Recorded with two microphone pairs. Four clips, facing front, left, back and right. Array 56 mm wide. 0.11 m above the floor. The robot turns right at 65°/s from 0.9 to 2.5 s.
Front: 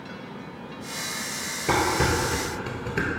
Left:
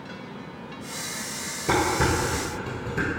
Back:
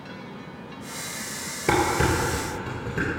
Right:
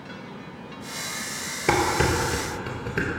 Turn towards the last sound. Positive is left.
turn(degrees=-60)